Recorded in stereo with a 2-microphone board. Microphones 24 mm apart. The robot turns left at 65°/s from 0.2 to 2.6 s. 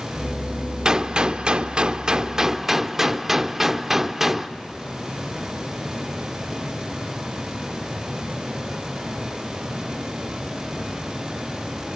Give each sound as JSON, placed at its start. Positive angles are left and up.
{"t": 0.8, "sound": "a gunshot", "azimuth_deg": -45, "distance_m": 0.6}